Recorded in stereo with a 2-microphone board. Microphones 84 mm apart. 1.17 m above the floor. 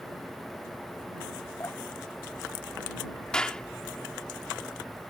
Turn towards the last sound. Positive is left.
turn(degrees=10)  # may be behind; listen again after turning